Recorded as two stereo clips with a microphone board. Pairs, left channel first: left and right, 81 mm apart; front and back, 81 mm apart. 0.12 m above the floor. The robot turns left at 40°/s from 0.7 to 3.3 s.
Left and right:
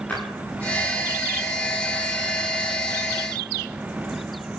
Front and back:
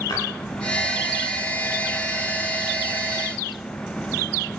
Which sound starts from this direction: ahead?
A splash, at 0.1 s.